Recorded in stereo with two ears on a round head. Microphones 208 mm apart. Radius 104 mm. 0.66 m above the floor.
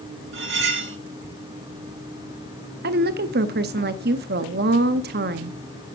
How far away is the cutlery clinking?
About 1.3 m.